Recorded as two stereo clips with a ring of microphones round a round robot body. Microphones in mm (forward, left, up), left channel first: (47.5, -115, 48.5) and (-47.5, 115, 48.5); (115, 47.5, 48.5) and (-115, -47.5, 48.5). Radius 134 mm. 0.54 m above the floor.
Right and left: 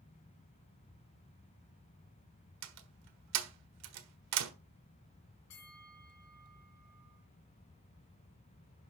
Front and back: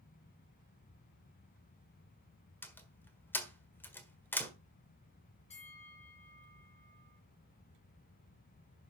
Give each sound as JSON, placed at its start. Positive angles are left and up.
{"t": 2.6, "sound": "a door slam", "azimuth_deg": 105, "distance_m": 1.5}
{"t": 5.5, "sound": "a bell", "azimuth_deg": -45, "distance_m": 4.0}